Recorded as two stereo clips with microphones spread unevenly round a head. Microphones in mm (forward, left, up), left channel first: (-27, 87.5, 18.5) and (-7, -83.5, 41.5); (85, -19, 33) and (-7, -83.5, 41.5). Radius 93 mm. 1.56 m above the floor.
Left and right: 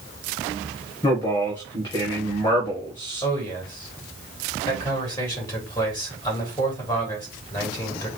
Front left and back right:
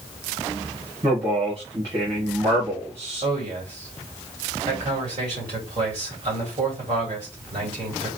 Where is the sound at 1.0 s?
160° left, 1.4 m.